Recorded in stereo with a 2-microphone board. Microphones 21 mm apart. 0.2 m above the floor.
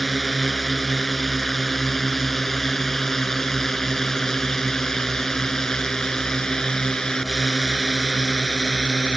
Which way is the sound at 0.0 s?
Centre (ahead or behind).